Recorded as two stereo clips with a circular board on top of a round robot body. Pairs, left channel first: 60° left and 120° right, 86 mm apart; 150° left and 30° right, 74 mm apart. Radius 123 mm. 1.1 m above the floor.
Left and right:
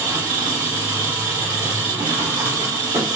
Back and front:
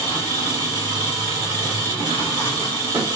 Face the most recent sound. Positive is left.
turn(degrees=-60)